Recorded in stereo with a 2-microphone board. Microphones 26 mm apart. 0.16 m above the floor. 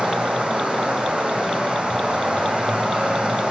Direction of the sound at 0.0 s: 40° right (ahead or behind).